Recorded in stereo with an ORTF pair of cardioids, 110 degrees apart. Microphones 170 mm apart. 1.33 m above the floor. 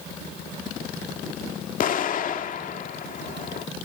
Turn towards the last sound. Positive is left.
turn(degrees=55)